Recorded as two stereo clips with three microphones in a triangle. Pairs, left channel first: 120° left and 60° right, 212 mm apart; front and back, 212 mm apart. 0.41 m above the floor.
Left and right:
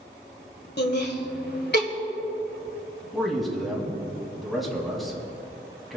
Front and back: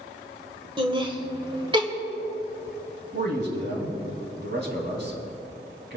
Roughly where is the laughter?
Behind left.